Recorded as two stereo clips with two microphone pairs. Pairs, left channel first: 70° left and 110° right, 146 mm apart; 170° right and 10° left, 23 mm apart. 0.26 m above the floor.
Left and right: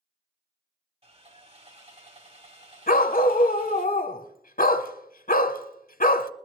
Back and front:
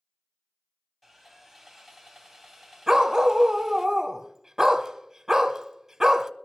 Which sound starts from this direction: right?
Sawing, at 1.0 s.